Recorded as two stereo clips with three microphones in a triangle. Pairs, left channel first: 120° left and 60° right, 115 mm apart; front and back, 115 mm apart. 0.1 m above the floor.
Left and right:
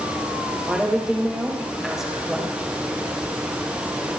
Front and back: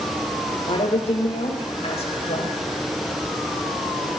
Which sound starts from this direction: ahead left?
A woman speaking, at 0.7 s.